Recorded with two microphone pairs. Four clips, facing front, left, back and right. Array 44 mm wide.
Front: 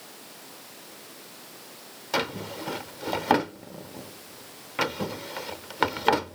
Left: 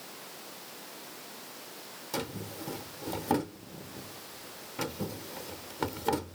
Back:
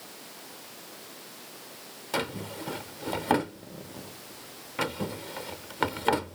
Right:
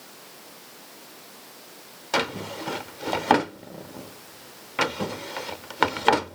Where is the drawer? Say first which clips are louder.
Right 11 dB, front 3 dB; 75° right.